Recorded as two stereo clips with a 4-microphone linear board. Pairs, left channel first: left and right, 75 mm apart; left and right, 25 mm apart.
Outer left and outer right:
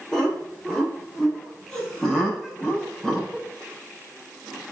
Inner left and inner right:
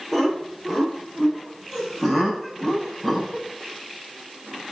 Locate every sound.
0.1 s laughter: 10° left (ahead or behind), 5.5 m; by 3.5 s 5° left (ahead or behind), 7 m